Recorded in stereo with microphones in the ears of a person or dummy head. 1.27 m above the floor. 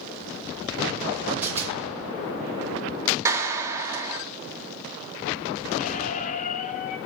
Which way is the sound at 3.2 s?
20° right (ahead or behind).